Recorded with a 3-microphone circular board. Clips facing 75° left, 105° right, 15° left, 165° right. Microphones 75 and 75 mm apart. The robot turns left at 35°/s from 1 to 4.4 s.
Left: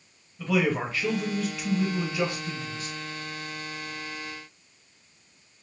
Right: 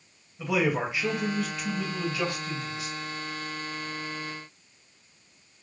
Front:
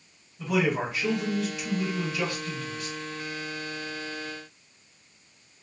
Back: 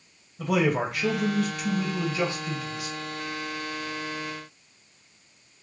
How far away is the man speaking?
About 1.2 m.